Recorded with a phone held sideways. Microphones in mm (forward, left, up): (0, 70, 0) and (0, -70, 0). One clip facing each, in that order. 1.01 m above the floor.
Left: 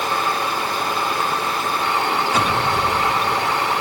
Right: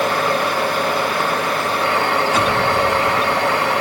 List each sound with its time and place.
0.0 s a fan: 70° right (ahead or behind), 2.5 m